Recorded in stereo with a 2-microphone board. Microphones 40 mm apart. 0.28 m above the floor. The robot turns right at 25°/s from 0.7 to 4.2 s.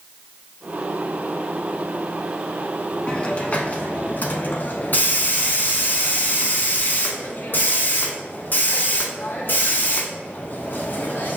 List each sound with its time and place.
3.1 s a hiss: 30° left (ahead or behind), 0.8 m; by 11.4 s 55° left (ahead or behind), 0.8 m